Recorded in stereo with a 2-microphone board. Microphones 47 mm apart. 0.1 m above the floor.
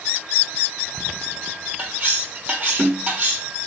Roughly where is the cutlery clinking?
Right.